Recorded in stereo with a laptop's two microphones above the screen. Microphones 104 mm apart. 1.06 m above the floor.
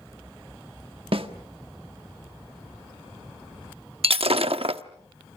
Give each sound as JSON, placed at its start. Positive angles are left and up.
{"t": 1.1, "sound": "a snare drum", "side_deg": -65, "distance_m": 1.4}
{"t": 4.0, "sound": "breaking glass", "side_deg": -70, "distance_m": 0.9}